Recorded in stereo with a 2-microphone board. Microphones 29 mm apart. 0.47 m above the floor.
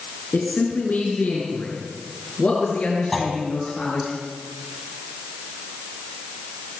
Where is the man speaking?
70° left (ahead or behind), 6 m; by 4.1 s 45° left (ahead or behind), 8.5 m.